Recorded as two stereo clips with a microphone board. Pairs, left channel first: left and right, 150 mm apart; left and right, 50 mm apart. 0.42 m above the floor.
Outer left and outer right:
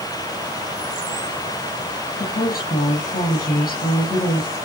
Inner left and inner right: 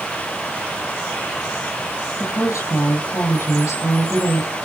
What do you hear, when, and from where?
2.2 s a woman speaking: 80° left, 7.5 m